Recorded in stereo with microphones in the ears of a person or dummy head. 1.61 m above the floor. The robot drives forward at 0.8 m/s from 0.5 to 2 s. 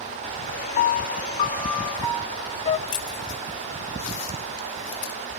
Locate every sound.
0.8 s a piano: 50° left (ahead or behind), 0.8 m; by 2.8 s 20° left (ahead or behind), 1.6 m
2.9 s keys jangling: 40° left (ahead or behind), 2.0 m